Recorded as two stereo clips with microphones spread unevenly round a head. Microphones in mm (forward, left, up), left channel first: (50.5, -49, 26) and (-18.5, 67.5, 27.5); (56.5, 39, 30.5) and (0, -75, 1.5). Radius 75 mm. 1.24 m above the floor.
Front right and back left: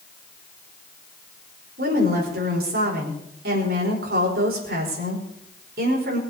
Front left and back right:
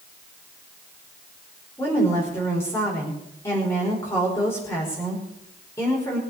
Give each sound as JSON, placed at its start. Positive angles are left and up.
{"t": 1.8, "sound": "a woman speaking", "azimuth_deg": 140, "distance_m": 5.0}